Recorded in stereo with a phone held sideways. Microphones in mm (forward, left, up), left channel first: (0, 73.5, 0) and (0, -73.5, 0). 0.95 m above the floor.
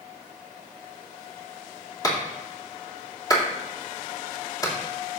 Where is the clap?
25° left (ahead or behind), 2 m.